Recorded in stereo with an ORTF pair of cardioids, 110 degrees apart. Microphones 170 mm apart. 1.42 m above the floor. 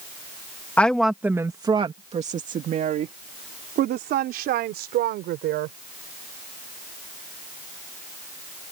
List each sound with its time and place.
0.8 s a woman speaking: 10° left; by 5.8 s 80° right